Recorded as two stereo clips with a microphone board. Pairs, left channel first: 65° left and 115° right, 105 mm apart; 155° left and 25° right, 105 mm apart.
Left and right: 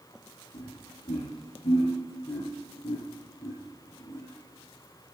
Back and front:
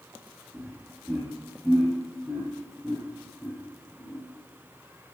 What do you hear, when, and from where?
0.5 s laughter: 75° left, 4 m; by 4.3 s 105° left, 1.9 m